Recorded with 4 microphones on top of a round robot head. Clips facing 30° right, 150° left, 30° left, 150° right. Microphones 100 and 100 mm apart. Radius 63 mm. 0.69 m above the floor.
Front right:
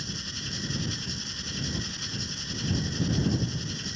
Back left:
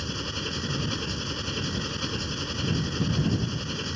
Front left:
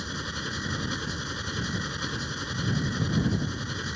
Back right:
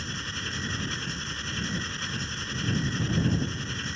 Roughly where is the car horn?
I don't hear a car horn.